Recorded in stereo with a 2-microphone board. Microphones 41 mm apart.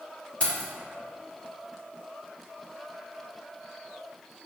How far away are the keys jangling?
About 1.1 m.